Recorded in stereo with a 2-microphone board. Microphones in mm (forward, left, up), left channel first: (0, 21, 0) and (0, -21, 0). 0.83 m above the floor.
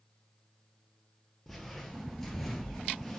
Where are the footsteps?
5° left (ahead or behind), 0.9 m.